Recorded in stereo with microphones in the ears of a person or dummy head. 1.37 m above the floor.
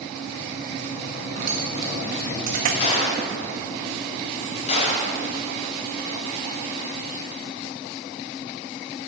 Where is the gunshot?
40° left (ahead or behind), 4 m.